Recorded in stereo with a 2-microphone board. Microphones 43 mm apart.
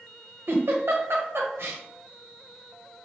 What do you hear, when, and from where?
0.5 s a giggle: 65° right (ahead or behind), 0.9 m